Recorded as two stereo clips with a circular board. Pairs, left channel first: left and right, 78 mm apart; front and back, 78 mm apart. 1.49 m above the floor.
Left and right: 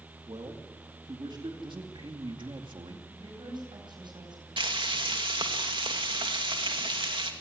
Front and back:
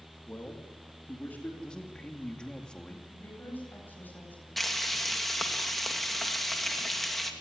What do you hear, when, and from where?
0.3 s a man speaking: 65° right, 2.5 m
1.6 s a man speaking: 80° right, 2 m
3.1 s a woman speaking: 65° right, 9.5 m
4.6 s frying: 85° right, 2.5 m